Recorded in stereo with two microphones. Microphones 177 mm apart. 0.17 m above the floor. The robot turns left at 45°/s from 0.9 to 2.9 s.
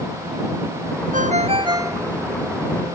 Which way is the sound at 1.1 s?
130° right.